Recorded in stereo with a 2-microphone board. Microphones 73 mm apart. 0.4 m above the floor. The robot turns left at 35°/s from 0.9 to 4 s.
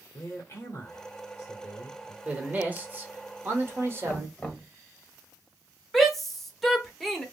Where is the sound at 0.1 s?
120° left, 1.1 m; by 2.1 s 75° left, 1.1 m.